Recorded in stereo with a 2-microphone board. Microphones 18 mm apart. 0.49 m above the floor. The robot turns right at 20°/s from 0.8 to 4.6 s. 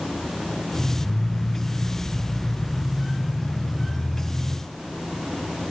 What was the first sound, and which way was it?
Only background noise.